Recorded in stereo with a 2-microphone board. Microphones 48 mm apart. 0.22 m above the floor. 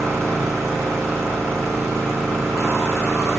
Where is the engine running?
80° right, 6.5 m.